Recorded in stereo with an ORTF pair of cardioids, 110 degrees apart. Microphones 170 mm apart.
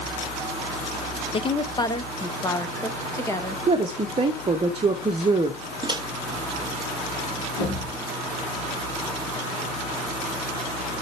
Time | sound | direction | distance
1.3 | a woman speaking | 35° left | 0.7 m
3.7 | a woman speaking | 35° right | 1.0 m
5.8 | a microwave | 25° right | 0.9 m
7.6 | a thud | 70° left | 4.5 m